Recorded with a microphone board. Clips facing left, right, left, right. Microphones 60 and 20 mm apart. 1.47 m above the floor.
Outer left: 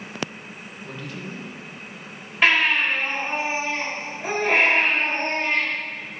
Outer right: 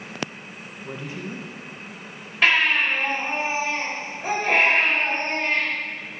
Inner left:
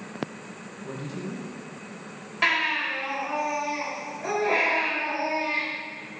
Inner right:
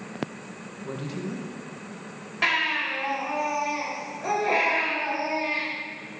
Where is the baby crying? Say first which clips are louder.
Even, even; 10° left (ahead or behind), 3 m.